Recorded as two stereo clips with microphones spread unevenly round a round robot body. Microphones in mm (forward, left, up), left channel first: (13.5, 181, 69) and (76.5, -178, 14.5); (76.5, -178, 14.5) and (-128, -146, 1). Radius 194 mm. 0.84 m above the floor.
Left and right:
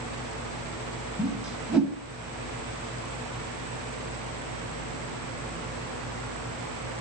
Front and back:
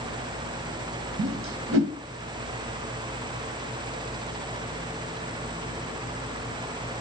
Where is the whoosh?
170° right, 1.9 m.